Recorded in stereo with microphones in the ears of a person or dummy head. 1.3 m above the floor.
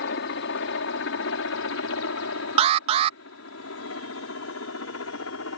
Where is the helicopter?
65° left (ahead or behind).